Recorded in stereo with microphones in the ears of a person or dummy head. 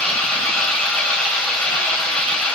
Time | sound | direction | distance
0.0 | an engine running | 5° left (ahead or behind) | 3 m